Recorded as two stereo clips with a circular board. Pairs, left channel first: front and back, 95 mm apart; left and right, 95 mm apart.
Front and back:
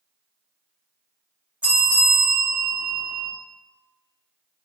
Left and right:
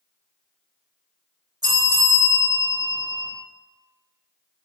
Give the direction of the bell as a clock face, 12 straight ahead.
4 o'clock.